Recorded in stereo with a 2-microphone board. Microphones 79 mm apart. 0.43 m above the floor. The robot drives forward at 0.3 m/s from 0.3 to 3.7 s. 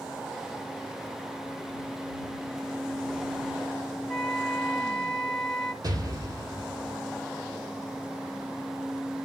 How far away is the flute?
About 0.6 m.